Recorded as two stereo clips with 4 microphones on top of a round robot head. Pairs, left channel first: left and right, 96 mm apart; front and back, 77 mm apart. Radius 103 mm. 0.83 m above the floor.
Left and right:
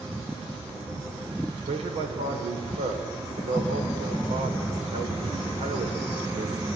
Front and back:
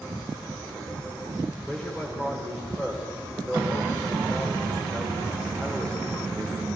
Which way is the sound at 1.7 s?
85° right.